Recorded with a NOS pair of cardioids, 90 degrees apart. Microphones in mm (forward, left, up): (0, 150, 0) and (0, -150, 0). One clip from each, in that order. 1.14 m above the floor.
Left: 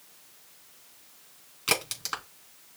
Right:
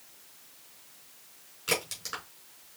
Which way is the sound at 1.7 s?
45° left.